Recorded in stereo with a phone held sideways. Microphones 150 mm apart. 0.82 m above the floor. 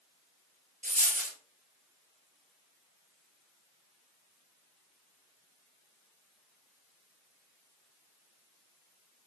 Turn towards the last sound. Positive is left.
turn(degrees=-55)  # may be behind; listen again after turning